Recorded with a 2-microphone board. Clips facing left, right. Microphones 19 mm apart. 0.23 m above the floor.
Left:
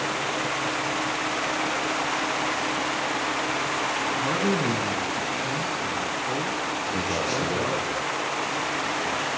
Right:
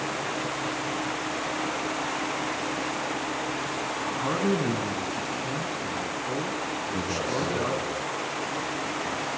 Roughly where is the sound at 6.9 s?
Left.